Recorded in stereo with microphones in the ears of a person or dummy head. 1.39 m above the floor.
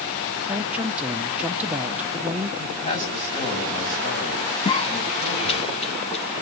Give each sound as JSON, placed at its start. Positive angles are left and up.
{"t": 0.5, "sound": "a woman speaking", "side_deg": -5, "distance_m": 1.0}
{"t": 2.6, "sound": "a man speaking", "side_deg": 35, "distance_m": 7.5}
{"t": 4.7, "sound": "a cough", "side_deg": 30, "distance_m": 0.7}